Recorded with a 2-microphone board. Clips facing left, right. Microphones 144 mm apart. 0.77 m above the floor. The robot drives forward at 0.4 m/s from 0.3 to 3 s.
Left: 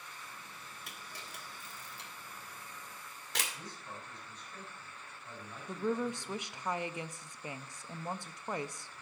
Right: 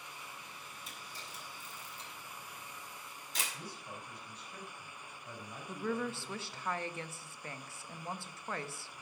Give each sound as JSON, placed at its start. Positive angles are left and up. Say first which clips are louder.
{"t": 0.9, "sound": "a camera shutter", "louder": "even", "side_deg": 70, "distance_m": 2.5}
{"t": 3.5, "sound": "a man speaking", "louder": "right 1 dB", "side_deg": -10, "distance_m": 4.5}
{"t": 5.7, "sound": "a woman speaking", "louder": "left 3 dB", "side_deg": 15, "distance_m": 0.5}